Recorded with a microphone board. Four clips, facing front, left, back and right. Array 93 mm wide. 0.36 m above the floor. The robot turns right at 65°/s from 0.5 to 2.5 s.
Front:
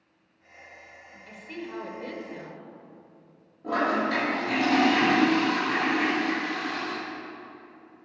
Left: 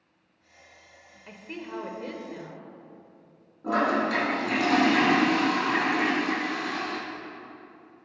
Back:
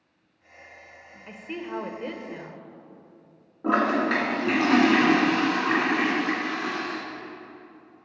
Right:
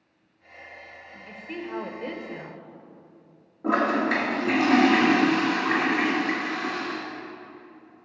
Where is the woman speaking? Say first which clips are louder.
Right 3 dB, back 4 dB; 165° left, 0.8 m; by 2.7 s 115° right, 0.8 m.